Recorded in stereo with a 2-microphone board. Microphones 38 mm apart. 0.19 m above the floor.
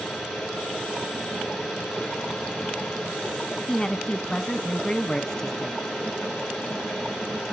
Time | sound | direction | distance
0.0 | an engine running | 10° left (ahead or behind) | 8.5 m
3.7 | a woman speaking | 20° left (ahead or behind) | 1.3 m